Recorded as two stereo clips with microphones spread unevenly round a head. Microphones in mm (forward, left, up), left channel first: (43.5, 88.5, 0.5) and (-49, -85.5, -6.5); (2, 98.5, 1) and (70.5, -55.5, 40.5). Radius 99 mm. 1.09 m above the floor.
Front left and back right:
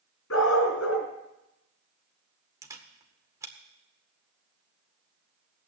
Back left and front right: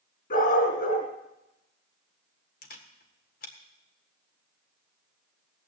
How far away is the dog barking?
About 3.5 m.